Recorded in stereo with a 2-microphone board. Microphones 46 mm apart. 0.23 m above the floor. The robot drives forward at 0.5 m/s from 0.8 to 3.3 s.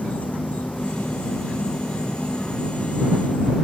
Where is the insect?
30° left (ahead or behind).